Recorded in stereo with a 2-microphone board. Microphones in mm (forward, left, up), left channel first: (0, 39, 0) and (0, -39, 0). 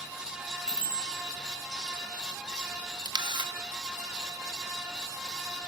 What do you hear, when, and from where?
0.7 s a bicycle bell: 10° left (ahead or behind), 6.5 m
3.0 s a camera shutter: 75° right (ahead or behind), 0.8 m